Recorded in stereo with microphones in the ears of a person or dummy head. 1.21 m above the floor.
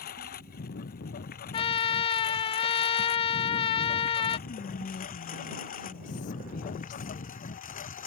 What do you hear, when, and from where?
0.0 s a lawn mower: 50° left (ahead or behind); by 8.1 s 40° left (ahead or behind)
1.5 s a trumpet: 30° left (ahead or behind)
4.5 s whispering: 45° left (ahead or behind)